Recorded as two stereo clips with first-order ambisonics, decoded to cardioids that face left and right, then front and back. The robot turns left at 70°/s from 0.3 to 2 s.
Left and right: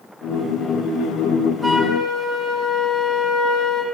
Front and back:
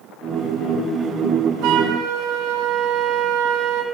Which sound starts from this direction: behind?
A flute, at 1.6 s.